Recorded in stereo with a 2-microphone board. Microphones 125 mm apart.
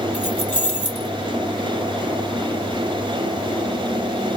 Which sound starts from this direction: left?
Keys jangling, at 0.1 s.